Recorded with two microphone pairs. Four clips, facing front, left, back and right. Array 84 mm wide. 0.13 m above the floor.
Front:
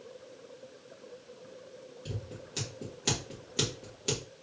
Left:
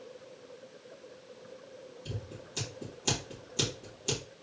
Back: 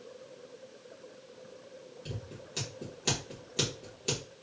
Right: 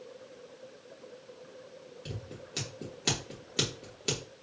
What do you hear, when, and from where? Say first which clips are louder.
2.0 s scissors: right 1 dB, front 2 dB; 80° right, 3 m